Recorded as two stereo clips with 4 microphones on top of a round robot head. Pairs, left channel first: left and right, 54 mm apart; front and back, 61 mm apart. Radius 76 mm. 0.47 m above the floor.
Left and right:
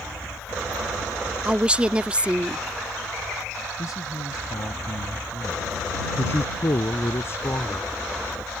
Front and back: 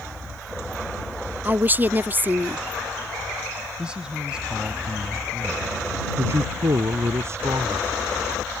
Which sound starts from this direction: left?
A man speaking, at 3.8 s.